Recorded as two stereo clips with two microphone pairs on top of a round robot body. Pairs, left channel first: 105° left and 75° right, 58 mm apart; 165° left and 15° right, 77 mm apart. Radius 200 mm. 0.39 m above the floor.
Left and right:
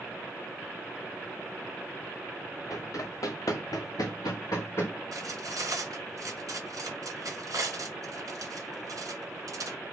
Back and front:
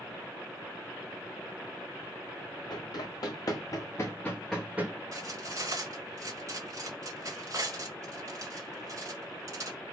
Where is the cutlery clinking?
55° right, 2 m.